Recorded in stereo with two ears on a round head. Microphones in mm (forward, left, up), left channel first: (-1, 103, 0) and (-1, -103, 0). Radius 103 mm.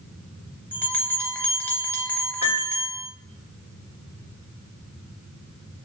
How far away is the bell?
About 0.5 m.